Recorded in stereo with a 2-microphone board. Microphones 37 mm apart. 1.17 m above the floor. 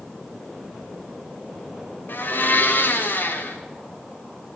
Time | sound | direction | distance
2.1 | a blender | 60° left (ahead or behind) | 1.9 m